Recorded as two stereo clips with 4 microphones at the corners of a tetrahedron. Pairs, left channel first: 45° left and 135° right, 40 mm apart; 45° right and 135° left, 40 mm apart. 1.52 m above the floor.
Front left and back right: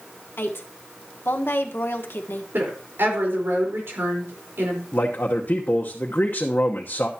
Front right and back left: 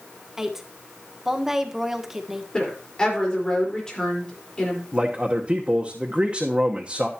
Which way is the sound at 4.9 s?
75° left.